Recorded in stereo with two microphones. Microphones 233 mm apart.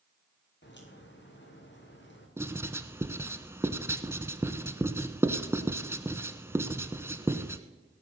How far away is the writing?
About 0.8 m.